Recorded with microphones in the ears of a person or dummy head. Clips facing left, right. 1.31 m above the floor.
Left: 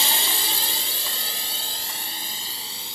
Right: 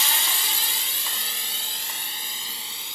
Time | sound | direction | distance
0.0 | a drone | 30° left (ahead or behind) | ?